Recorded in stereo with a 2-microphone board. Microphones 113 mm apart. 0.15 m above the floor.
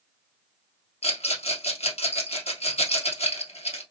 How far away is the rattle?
About 1.5 m.